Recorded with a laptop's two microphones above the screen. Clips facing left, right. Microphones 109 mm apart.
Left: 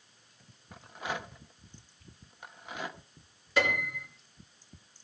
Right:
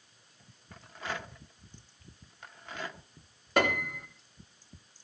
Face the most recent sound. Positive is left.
turn(degrees=-55)  # may be behind; listen again after turning